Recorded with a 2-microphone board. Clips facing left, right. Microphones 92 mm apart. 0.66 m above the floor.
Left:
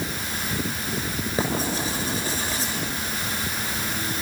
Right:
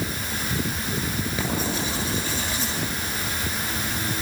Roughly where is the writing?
Left.